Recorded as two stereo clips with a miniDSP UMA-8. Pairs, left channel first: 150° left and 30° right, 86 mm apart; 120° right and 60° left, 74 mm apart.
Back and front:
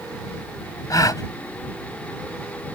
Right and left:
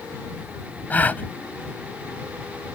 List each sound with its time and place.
0.9 s a gasp: straight behind